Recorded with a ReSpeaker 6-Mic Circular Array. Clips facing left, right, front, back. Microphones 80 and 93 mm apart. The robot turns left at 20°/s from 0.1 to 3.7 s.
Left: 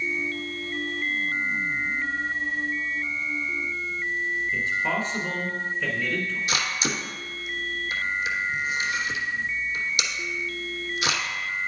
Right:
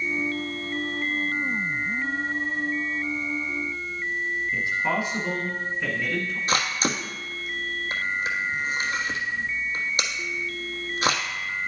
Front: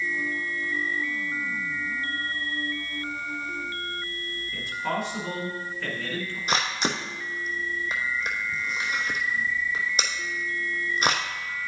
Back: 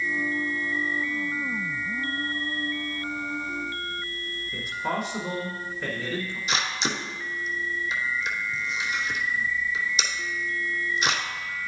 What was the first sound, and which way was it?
A man speaking, 145° right.